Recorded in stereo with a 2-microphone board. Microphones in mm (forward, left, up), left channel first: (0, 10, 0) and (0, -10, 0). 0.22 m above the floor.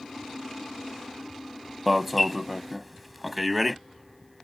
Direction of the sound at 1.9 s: 5° right (ahead or behind).